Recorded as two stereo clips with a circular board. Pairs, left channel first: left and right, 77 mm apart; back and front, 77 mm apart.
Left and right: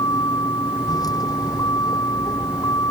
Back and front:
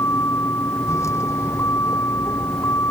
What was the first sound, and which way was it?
A vehicle, 125° left.